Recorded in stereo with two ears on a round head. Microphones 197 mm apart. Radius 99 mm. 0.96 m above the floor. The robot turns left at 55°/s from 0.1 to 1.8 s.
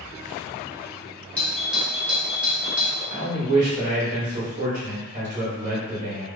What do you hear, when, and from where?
1.4 s a doorbell: 5° left (ahead or behind), 0.7 m; by 3.0 s 5° right (ahead or behind), 0.7 m
3.1 s a man speaking: 40° right (ahead or behind), 1.1 m